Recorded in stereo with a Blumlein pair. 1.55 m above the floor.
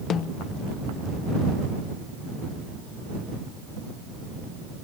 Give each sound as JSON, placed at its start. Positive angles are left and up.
{"t": 0.1, "sound": "a snare drum", "azimuth_deg": 25}